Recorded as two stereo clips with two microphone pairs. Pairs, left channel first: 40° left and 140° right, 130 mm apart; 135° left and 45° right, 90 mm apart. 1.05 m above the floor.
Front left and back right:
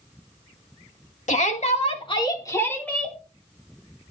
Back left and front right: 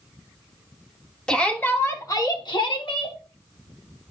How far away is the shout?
About 1.8 m.